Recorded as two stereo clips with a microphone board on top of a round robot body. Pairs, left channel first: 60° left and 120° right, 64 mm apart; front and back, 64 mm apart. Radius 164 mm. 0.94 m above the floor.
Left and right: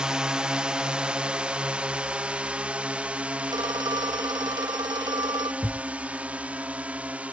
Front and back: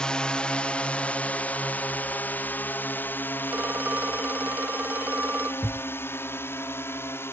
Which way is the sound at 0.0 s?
60° right.